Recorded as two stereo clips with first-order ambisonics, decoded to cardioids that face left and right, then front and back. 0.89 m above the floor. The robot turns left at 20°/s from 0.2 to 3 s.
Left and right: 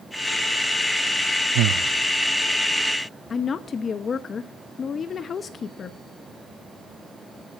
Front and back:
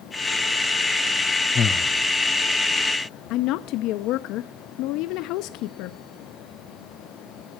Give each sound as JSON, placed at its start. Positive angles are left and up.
{"t": 1.6, "sound": "breathing", "azimuth_deg": -65, "distance_m": 0.6}
{"t": 3.3, "sound": "a woman speaking", "azimuth_deg": 25, "distance_m": 0.7}